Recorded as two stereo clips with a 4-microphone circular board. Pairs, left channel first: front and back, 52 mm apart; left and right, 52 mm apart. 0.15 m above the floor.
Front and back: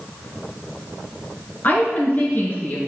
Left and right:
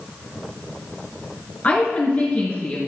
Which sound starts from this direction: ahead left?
A woman speaking, at 1.6 s.